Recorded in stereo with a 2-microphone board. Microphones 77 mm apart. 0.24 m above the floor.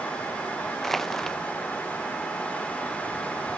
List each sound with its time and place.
0.8 s crushing: 5° left (ahead or behind)